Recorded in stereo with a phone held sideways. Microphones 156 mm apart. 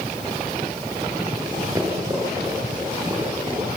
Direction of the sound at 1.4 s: 25° right (ahead or behind).